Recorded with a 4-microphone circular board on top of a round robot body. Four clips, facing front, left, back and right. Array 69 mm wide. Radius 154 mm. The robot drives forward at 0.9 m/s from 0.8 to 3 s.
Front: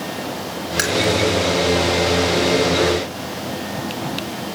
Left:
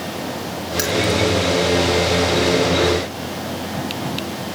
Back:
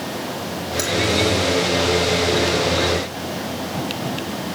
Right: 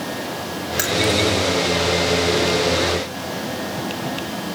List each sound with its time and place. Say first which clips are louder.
0.8 s keys jangling: left 1 dB, front 2 dB; 10° right, 0.9 m; by 1.2 s 20° right, 0.5 m